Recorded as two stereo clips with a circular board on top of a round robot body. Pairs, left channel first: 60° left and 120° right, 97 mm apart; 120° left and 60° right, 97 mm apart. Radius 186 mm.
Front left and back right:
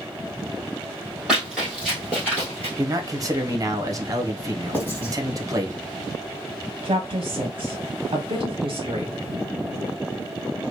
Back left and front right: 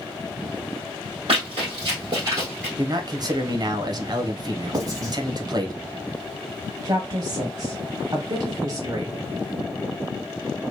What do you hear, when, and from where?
1.3 s running footsteps: 35° right, 1.7 m; by 2.7 s 25° left, 1.0 m
2.8 s a man speaking: 80° right, 1.0 m
4.7 s writing: 10° right, 2 m
6.8 s a woman speaking: 95° right, 0.8 m